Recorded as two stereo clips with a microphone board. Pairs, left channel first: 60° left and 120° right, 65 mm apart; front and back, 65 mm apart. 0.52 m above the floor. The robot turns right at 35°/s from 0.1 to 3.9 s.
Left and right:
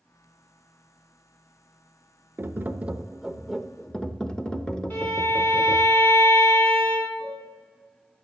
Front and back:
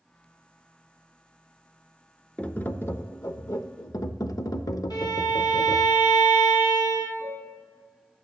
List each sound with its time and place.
2.4 s tapping: 70° right, 0.6 m; by 5.9 s 15° right, 0.6 m
4.9 s a violin: straight ahead, 4 m
7.2 s a piano: 60° right, 4.5 m